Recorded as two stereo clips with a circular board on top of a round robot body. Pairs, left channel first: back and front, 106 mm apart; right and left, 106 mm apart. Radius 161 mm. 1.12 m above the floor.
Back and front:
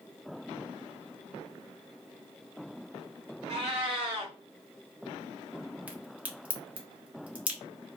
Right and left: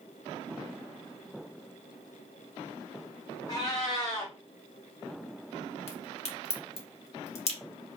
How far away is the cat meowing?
About 0.6 m.